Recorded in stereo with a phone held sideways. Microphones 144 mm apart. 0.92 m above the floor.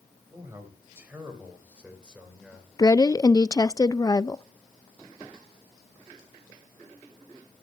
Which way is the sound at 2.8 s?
25° left (ahead or behind).